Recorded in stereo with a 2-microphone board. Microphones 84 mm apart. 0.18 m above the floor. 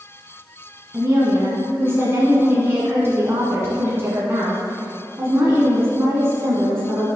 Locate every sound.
0.9 s a woman speaking: 30° right (ahead or behind), 1.7 m